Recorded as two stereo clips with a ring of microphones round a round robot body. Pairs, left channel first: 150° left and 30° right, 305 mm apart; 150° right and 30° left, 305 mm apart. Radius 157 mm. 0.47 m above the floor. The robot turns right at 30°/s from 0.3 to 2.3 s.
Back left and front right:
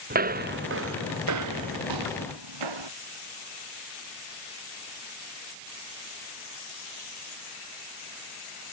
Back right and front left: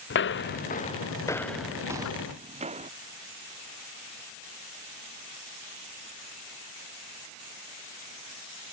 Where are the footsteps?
95° right; by 2.9 s 40° right.